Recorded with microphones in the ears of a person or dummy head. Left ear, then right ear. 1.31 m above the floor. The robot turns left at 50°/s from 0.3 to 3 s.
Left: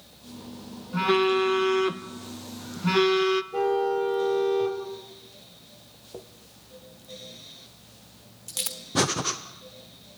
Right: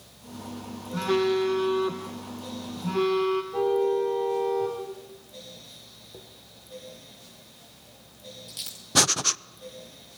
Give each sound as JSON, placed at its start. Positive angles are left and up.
{"t": 0.9, "sound": "a phone buzzing", "azimuth_deg": 160, "distance_m": 1.2}
{"t": 3.5, "sound": "a car horn", "side_deg": 50, "distance_m": 4.5}
{"t": 6.1, "sound": "a dropped coin", "side_deg": 30, "distance_m": 1.3}
{"t": 8.9, "sound": "breathing", "side_deg": -35, "distance_m": 0.6}